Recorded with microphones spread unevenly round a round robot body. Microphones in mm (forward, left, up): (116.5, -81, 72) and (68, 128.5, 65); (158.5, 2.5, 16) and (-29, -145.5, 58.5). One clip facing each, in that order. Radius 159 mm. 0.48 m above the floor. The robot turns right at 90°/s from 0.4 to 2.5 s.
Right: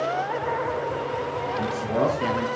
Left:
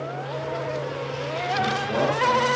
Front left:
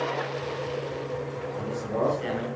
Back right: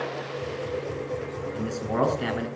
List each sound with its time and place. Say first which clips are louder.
1.5 s a man speaking: right 1 dB, back right 3 dB; 175° left, 6.5 m; by 2.5 s 100° right, 6.5 m